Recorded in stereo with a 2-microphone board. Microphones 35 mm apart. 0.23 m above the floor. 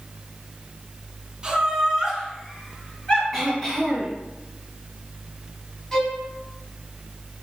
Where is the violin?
15° left (ahead or behind), 1.5 m.